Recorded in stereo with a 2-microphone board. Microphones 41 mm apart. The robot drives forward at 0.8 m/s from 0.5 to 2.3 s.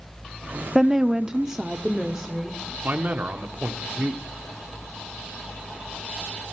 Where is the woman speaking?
10° right (ahead or behind), 0.6 m; by 2.7 s 5° right (ahead or behind), 1.2 m.